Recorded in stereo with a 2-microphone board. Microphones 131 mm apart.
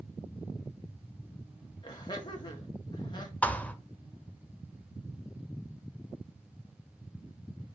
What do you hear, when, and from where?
1.8 s laughter: 35° left (ahead or behind), 1.9 m
3.4 s a thud: 10° left (ahead or behind), 1.3 m